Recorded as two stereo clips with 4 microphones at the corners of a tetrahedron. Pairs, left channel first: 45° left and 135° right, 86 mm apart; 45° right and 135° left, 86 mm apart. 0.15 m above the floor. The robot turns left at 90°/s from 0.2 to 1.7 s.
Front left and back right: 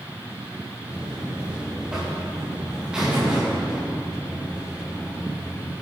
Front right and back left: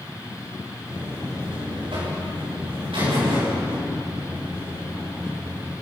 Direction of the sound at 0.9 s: 145° right.